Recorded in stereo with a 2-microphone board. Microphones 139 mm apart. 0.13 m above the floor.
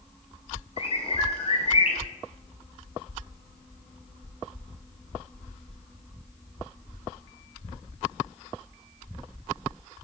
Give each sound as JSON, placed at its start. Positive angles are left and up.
{"t": 0.8, "sound": "a bird", "side_deg": 45, "distance_m": 1.4}